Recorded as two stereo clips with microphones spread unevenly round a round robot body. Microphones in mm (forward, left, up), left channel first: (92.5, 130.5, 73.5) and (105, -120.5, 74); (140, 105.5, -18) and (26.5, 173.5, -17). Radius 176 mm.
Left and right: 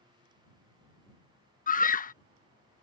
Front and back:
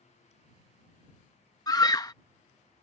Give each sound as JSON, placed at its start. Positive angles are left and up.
{"t": 1.7, "sound": "a scream", "azimuth_deg": 35}